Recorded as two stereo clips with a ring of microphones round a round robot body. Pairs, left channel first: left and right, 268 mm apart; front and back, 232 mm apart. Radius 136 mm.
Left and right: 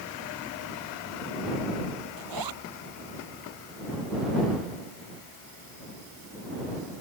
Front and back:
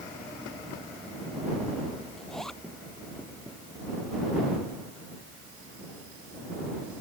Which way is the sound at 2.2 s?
90° right.